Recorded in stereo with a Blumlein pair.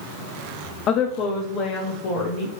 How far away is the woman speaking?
About 0.6 m.